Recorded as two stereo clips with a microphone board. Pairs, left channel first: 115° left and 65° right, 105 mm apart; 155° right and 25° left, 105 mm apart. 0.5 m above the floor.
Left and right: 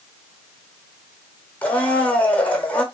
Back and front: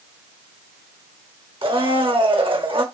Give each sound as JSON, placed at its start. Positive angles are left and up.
{"t": 1.6, "sound": "a blender", "azimuth_deg": 40, "distance_m": 1.1}